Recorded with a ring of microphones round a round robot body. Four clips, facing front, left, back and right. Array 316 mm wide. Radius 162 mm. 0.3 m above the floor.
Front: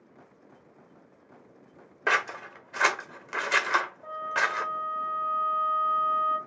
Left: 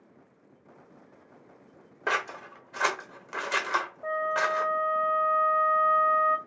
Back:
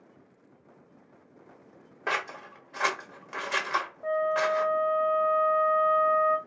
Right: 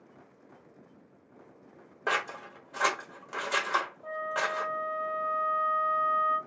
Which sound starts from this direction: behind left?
A flute, at 4.0 s.